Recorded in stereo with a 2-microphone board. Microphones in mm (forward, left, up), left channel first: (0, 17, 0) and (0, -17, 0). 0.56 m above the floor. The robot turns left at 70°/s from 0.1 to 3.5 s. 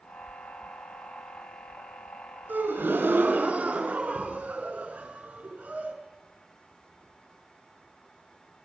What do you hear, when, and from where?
2.5 s a gasp: 60° right, 5 m; by 5.9 s 130° right, 5 m